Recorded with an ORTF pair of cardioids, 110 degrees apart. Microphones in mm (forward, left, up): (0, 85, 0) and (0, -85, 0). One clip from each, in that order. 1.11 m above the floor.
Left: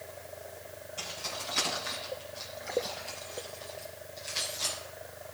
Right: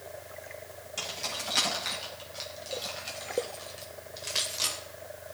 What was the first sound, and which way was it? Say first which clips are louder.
Keys jangling: right 3 dB; 70° right.